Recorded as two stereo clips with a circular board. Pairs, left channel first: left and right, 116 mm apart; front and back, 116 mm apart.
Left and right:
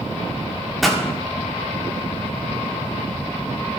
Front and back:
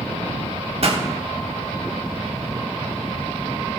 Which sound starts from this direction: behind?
A pop, at 0.8 s.